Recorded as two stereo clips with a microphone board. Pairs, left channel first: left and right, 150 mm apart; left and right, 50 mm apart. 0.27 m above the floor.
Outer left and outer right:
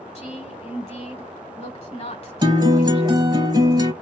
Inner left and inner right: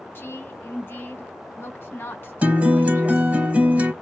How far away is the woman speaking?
About 1.6 m.